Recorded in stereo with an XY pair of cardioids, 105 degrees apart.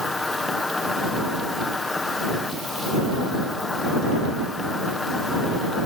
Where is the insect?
20° left.